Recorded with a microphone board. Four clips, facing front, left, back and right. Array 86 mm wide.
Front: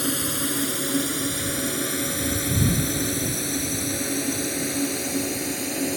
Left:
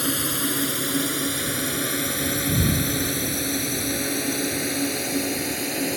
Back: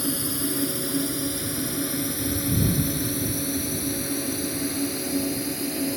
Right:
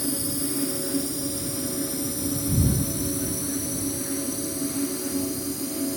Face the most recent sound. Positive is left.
turn(degrees=75)